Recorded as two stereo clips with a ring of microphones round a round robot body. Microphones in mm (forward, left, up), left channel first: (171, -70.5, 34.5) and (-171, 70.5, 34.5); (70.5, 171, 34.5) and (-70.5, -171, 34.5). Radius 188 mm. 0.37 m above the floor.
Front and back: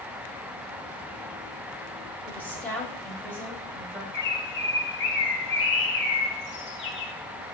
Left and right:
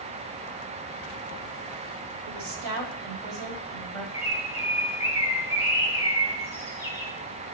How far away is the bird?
About 1.0 m.